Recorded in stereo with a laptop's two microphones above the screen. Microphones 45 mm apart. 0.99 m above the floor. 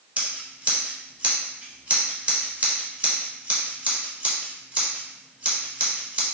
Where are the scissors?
35° right (ahead or behind), 0.9 m.